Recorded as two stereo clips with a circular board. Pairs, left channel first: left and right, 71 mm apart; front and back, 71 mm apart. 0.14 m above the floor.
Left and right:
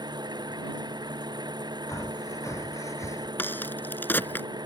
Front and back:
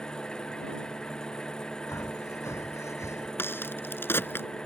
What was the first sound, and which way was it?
An engine running, 80° right.